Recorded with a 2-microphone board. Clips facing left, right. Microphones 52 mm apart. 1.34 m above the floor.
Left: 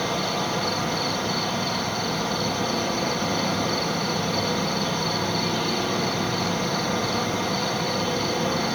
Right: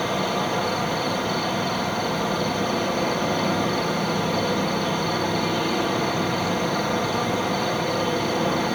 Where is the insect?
20° right (ahead or behind), 1.9 m.